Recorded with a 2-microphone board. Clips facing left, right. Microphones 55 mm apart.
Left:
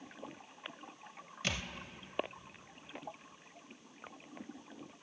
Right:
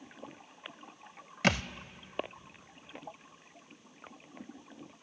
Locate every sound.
1.4 s a thud: 75° right (ahead or behind), 0.5 m